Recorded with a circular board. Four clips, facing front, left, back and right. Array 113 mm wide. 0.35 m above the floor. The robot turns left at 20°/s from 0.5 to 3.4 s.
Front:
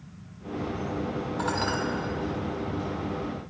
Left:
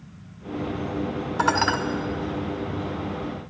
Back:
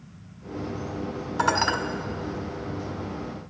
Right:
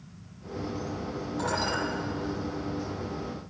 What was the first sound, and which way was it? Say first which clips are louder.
Dishes clattering: left 9 dB, back 7 dB; 130° left.